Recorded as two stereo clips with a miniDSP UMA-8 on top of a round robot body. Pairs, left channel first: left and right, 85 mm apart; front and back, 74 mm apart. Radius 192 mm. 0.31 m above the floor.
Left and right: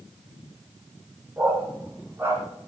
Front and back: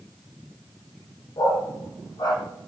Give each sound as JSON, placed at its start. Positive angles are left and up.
{"t": 1.4, "sound": "a dog barking", "azimuth_deg": -25, "distance_m": 5.0}